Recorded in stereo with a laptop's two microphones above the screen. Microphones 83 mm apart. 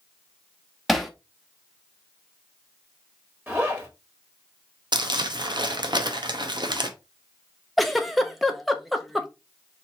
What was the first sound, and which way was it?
Hammering, centre (ahead or behind).